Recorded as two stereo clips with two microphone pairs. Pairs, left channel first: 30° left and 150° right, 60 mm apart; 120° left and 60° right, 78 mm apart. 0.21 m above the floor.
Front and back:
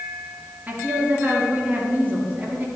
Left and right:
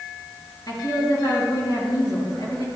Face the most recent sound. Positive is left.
turn(degrees=150)